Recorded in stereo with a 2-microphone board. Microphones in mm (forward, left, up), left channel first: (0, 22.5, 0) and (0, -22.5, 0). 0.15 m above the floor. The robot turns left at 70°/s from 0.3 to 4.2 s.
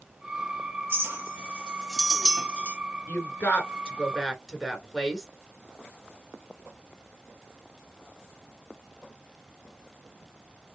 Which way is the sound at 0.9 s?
50° right (ahead or behind).